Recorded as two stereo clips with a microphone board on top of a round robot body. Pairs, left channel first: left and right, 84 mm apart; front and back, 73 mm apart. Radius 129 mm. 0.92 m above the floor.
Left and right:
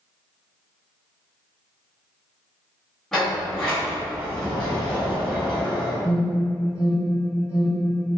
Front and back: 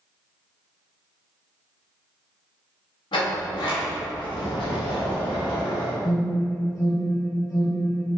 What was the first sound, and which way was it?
A sliding door, 5° left.